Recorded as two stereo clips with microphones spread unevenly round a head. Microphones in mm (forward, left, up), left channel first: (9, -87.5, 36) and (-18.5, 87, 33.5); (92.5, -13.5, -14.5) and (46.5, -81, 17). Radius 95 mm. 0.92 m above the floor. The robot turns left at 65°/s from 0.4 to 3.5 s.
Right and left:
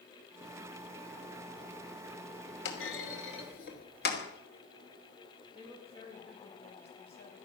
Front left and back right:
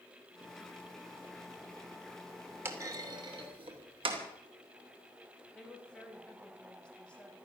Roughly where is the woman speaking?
Ahead.